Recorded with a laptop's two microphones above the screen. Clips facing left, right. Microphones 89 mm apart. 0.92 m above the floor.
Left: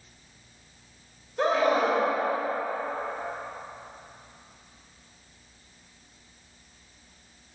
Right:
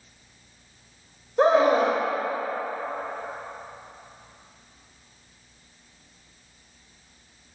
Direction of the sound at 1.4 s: 25° right (ahead or behind).